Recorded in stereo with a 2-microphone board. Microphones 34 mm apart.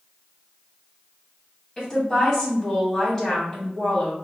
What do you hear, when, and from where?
1.8 s a woman speaking: 15° left (ahead or behind), 2 m